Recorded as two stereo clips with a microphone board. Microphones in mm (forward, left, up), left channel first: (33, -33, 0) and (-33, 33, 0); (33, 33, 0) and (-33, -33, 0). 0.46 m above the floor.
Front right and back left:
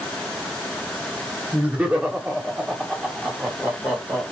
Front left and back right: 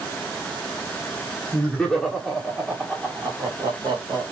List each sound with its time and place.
1.5 s laughter: 85° left, 1.2 m; by 4.2 s 160° right, 1.6 m